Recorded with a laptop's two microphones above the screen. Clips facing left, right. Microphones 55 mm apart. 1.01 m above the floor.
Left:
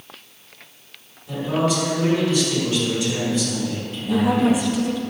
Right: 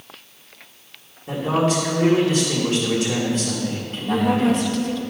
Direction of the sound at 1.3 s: 70° right (ahead or behind).